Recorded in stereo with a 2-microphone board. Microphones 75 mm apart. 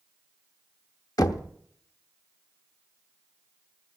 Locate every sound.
1.2 s knocking: 55° left (ahead or behind), 0.9 m